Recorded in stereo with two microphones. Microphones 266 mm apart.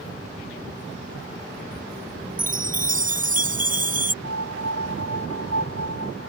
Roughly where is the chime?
Right.